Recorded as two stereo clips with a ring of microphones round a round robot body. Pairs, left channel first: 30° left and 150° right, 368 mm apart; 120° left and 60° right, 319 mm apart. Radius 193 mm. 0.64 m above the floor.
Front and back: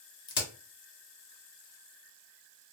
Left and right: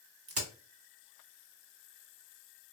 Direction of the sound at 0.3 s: 25° right.